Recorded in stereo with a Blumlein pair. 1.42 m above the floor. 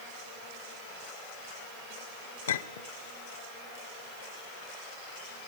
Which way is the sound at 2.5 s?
60° left.